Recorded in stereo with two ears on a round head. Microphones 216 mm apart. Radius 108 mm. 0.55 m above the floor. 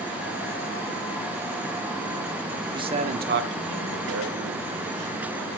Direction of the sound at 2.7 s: 15° right (ahead or behind).